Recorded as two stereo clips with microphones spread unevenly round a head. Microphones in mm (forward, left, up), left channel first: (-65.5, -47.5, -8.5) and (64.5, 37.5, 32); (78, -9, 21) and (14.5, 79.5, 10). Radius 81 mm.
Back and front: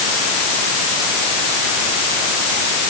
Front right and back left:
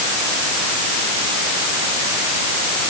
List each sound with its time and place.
Only background noise.